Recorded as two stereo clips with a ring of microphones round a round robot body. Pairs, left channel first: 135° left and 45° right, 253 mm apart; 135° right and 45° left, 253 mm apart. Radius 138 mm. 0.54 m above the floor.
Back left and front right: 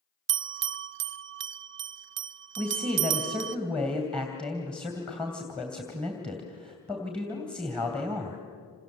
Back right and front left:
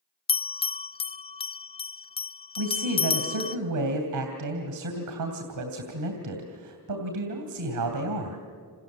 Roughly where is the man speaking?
Ahead left.